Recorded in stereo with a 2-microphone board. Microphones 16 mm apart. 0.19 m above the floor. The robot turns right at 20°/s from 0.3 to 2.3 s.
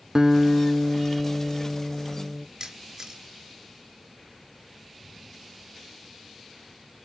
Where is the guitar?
45° right, 0.7 m; by 2.5 s 5° right, 0.7 m.